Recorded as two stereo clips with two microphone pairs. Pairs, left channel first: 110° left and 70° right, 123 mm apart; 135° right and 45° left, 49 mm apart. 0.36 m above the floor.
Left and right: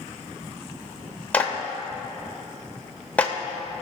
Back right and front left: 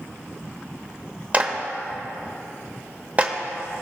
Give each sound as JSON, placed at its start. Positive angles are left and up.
{"t": 1.3, "sound": "a clap", "azimuth_deg": 40, "distance_m": 0.9}